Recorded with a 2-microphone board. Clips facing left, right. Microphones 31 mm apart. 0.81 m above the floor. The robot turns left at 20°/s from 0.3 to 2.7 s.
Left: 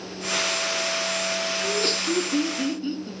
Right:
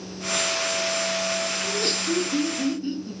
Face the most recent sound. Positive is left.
turn(degrees=25)  # may be behind; listen again after turning